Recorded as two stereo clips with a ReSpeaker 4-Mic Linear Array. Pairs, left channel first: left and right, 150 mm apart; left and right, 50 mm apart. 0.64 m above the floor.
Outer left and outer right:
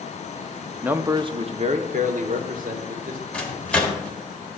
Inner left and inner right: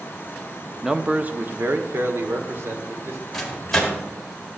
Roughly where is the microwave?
Centre.